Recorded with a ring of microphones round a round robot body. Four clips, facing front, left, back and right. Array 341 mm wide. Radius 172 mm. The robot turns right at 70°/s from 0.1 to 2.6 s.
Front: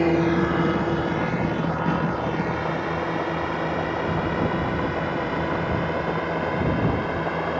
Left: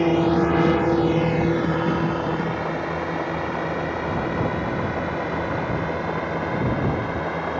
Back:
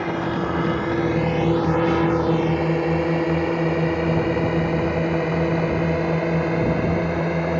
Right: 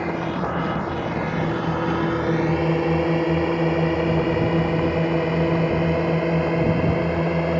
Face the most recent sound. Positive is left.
turn(degrees=-130)